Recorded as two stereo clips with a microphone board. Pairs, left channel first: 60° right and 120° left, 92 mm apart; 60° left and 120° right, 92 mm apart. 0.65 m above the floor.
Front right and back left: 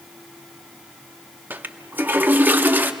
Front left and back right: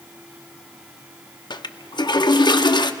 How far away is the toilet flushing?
About 0.6 m.